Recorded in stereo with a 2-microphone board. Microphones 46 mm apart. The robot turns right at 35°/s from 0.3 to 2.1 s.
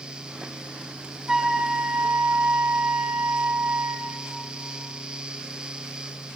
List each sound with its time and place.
1.3 s a flute: 10° right (ahead or behind), 1.6 m; by 4.2 s 40° right (ahead or behind), 1.6 m